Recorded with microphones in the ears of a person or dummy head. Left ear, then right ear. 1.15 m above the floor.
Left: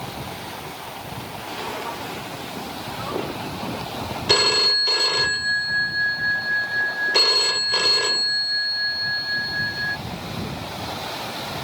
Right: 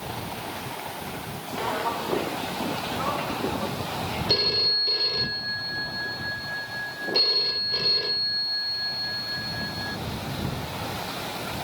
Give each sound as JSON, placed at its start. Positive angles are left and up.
{"t": 1.6, "sound": "footsteps", "side_deg": -15}
{"t": 4.3, "sound": "a phone ringing", "side_deg": 50}